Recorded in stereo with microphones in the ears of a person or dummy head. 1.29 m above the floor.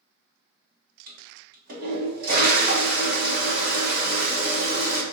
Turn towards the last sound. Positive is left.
turn(degrees=-40)  # may be behind; listen again after turning